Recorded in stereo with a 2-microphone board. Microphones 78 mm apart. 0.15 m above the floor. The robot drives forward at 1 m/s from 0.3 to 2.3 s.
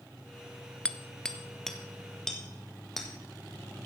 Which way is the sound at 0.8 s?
15° left (ahead or behind).